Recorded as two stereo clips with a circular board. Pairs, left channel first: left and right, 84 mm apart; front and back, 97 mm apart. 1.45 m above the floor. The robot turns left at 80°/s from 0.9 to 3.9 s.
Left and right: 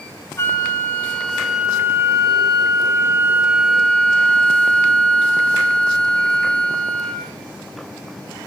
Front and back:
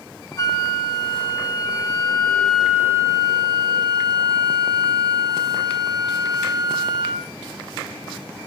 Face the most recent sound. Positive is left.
turn(degrees=165)